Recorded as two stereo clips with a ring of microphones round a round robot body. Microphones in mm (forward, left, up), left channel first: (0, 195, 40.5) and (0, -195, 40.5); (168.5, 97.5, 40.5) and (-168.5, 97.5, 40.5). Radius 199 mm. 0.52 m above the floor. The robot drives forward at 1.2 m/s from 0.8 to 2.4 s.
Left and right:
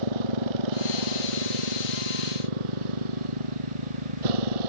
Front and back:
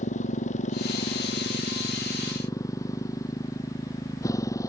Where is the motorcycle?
75° right; by 4.7 s 80° right.